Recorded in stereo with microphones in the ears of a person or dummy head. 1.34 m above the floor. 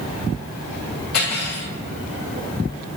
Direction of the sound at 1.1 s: 50° left (ahead or behind).